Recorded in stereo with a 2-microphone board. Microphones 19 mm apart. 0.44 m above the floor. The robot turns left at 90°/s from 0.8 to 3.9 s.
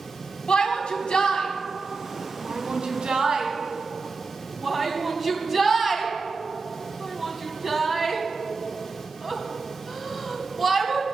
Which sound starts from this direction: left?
A shout, at 0.5 s.